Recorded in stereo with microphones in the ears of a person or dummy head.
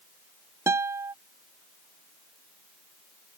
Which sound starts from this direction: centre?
A guitar, at 0.7 s.